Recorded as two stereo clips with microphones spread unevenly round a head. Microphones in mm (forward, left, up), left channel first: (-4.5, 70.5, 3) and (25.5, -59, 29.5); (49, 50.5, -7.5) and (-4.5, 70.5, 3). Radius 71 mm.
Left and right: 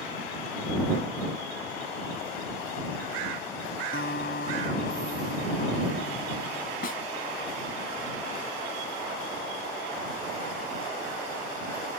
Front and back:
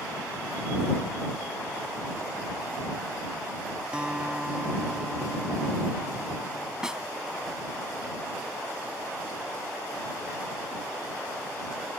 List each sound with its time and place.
3.9 s a guitar: 85° left
6.8 s a snare drum: 80° left